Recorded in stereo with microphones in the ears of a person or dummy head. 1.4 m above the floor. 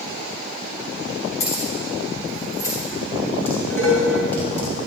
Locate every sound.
1.4 s keys jangling: 35° left (ahead or behind), 2.5 m; by 2.8 s 15° left (ahead or behind), 4 m
3.5 s dishes clattering: 10° left (ahead or behind), 5 m